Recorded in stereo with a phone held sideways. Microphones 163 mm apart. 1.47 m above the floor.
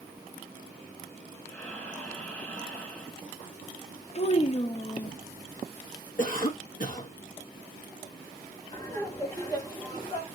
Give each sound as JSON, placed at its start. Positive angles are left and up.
{"t": 1.5, "sound": "breathing", "side_deg": 10, "distance_m": 1.2}
{"t": 4.2, "sound": "a child speaking", "side_deg": 40, "distance_m": 0.6}
{"t": 6.2, "sound": "a cough", "side_deg": 60, "distance_m": 1.5}
{"t": 8.7, "sound": "laughter", "side_deg": 20, "distance_m": 2.5}